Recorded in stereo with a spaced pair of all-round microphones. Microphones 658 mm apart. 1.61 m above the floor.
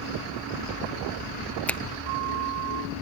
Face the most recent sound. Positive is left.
turn(degrees=0)  # may be behind; listen again after turning